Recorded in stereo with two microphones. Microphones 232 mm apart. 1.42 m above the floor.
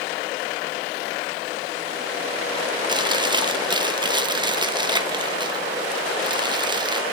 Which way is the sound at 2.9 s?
20° right (ahead or behind).